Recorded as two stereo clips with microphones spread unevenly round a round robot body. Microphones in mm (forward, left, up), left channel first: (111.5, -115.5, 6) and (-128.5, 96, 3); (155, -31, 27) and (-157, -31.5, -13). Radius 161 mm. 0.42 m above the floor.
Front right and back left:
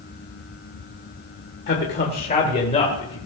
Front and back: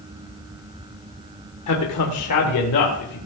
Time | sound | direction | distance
1.7 | a man speaking | 5° right | 1.6 m